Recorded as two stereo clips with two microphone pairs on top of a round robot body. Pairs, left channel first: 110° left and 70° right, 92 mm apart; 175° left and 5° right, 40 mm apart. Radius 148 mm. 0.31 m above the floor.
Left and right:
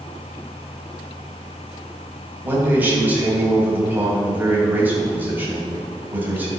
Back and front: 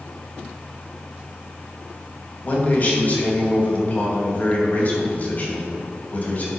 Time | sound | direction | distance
2.4 | a man speaking | 140° right | 2.5 m